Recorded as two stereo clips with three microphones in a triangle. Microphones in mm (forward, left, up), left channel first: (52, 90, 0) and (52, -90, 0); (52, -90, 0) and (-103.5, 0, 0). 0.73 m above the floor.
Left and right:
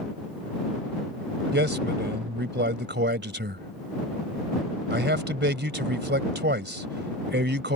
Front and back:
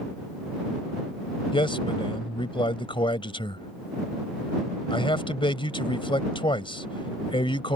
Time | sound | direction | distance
1.5 | a man speaking | 90° right | ?